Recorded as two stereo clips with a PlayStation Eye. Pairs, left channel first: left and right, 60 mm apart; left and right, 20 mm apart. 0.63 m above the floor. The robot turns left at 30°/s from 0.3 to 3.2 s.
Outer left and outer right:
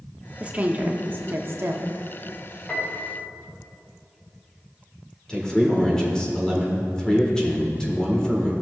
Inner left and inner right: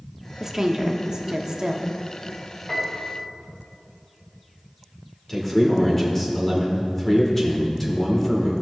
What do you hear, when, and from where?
0.4 s a woman speaking: 30° right, 0.9 m; by 1.9 s 75° right, 0.9 m
2.7 s a piano: 25° left (ahead or behind), 2.5 m; by 3.2 s 35° left (ahead or behind), 2.5 m
5.3 s a man speaking: 15° left (ahead or behind), 2 m